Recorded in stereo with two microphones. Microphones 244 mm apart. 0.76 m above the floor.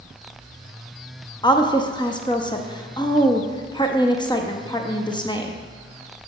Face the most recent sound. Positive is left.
turn(degrees=20)  # may be behind; listen again after turning